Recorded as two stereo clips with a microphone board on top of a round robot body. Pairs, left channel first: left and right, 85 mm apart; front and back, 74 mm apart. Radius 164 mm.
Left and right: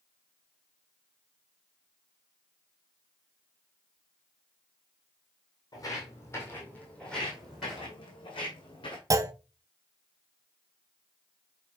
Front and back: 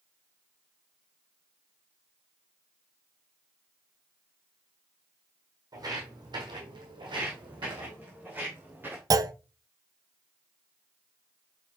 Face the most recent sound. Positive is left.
turn(degrees=-140)